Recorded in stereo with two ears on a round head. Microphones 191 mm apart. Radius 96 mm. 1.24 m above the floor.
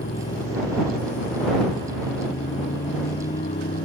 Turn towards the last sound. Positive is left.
turn(degrees=35)  # may be behind; listen again after turning